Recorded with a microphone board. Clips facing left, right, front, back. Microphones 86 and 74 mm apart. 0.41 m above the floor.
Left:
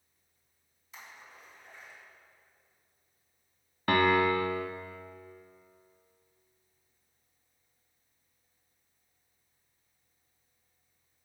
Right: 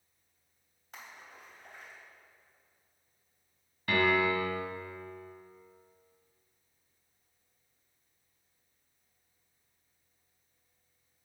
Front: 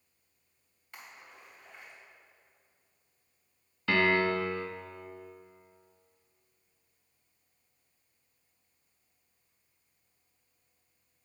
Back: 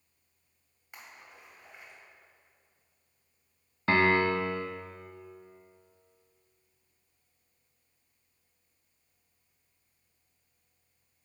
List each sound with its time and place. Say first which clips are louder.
0.9 s a splash: right 1 dB, even; 110° right, 3 m
3.9 s a piano: left 3 dB, back 2 dB; 130° left, 0.8 m